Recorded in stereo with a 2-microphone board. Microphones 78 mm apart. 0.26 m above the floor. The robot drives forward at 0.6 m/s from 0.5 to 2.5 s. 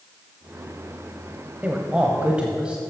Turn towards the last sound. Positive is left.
turn(degrees=-15)  # may be behind; listen again after turning